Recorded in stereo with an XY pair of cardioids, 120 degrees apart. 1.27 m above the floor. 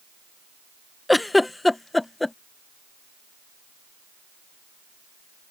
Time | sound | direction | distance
1.1 | a giggle | 10° left | ?